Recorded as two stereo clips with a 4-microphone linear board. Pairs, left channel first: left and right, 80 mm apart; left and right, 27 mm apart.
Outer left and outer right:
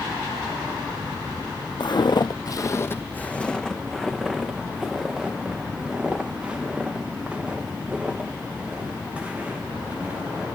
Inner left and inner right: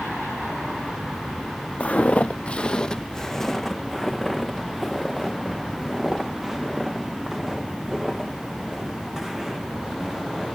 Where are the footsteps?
75° left (ahead or behind), 0.8 m; by 10.5 s 15° right (ahead or behind), 6.5 m.